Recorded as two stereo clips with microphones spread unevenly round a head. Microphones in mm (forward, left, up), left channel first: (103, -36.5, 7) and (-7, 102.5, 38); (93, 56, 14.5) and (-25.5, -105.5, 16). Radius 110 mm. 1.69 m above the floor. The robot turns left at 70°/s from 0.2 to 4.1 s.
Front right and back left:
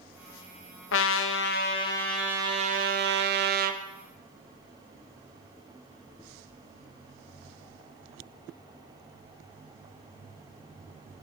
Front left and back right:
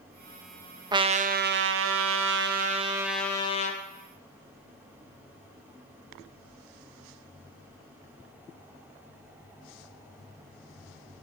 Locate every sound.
0.9 s a trumpet: 60° right, 0.7 m; by 3.8 s 100° left, 0.7 m